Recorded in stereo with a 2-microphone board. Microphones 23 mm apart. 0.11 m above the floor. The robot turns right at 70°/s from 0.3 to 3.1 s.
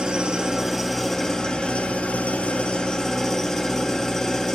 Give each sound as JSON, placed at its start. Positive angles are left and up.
{"t": 0.0, "sound": "an engine running", "azimuth_deg": -35, "distance_m": 1.2}